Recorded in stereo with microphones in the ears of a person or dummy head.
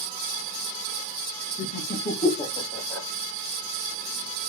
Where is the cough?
I don't hear a cough.